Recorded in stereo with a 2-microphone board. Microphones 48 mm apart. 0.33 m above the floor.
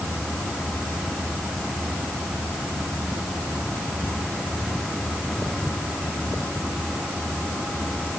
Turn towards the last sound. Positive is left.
No sound to turn to.